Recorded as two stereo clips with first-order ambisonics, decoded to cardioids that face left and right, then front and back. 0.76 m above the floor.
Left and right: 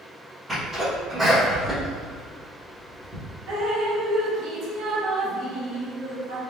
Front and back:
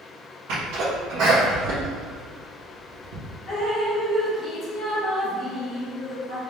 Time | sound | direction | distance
0.5 | a sneeze | 165° right | 1.2 m
3.5 | dripping | 60° right | 0.9 m